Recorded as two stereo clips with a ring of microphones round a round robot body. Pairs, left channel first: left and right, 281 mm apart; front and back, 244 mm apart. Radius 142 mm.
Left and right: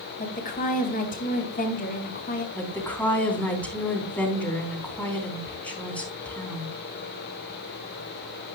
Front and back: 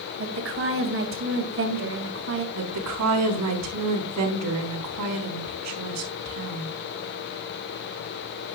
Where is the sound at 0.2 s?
150° left, 3 m.